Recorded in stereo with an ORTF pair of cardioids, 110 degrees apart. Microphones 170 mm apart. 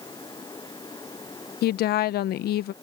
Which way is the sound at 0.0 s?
25° left.